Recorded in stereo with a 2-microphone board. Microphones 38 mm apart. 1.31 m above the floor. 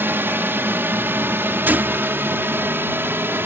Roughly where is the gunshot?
Right.